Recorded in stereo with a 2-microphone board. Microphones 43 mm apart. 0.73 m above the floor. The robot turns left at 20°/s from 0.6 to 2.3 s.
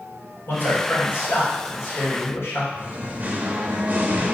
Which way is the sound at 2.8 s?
40° right (ahead or behind).